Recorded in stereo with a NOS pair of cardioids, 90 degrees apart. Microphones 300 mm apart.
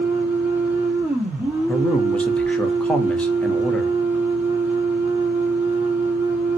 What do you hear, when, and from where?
0.0 s a machine running: 5° right, 1.1 m
1.7 s a man speaking: 5° left, 0.8 m